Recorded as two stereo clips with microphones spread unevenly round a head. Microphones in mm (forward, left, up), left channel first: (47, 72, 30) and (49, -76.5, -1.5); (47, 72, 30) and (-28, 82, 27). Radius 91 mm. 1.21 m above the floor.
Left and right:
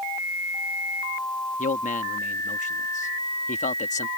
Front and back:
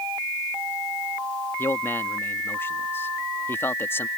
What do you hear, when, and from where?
1.6 s a man speaking: 55° left